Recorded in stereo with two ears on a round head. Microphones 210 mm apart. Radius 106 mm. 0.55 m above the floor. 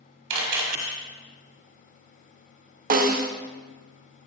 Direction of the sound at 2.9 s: 40° right (ahead or behind).